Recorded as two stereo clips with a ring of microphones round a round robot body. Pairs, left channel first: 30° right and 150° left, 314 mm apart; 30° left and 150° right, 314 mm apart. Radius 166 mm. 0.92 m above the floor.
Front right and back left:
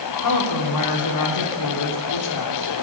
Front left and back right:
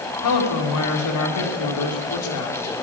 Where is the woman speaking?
Straight ahead, 3 m.